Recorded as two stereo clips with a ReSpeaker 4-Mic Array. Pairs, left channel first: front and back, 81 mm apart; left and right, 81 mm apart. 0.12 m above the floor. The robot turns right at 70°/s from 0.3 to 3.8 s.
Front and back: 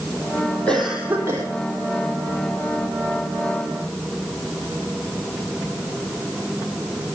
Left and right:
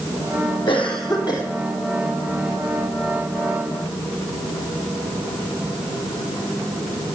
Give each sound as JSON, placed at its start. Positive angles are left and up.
{"t": 0.7, "sound": "a cough", "azimuth_deg": 75, "distance_m": 4.0}